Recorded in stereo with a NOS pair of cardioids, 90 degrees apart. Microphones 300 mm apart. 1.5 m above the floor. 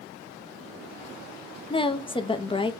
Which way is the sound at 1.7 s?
15° left.